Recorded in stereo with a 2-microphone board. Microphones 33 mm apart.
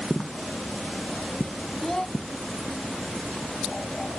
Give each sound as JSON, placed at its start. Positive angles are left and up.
{"t": 1.8, "sound": "a child speaking", "side_deg": 10}